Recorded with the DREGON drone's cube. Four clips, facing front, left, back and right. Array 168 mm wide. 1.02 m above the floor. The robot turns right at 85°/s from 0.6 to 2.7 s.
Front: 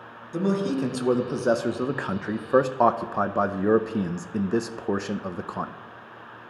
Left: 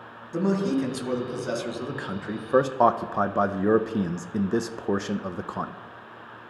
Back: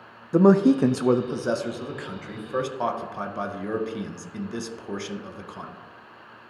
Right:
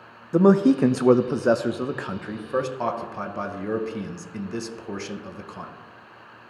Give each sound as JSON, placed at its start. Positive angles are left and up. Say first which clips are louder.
{"t": 0.3, "sound": "a man speaking", "louder": "right 8 dB, back 8 dB", "azimuth_deg": -140, "distance_m": 0.6}